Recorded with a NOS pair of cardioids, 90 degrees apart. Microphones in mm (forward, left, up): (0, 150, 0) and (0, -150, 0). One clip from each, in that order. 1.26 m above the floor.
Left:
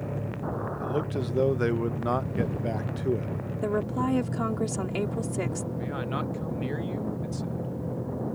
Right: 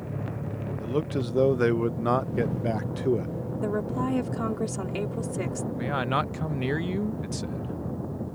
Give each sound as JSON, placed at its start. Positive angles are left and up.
{"t": 0.8, "sound": "a man speaking", "azimuth_deg": -15}
{"t": 3.6, "sound": "a woman speaking", "azimuth_deg": 10}
{"t": 5.8, "sound": "a man speaking", "azimuth_deg": -45}